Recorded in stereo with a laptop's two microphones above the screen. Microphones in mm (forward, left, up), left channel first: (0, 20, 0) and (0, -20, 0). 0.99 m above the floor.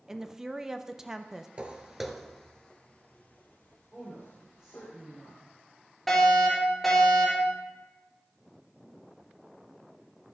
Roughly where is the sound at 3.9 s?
Centre.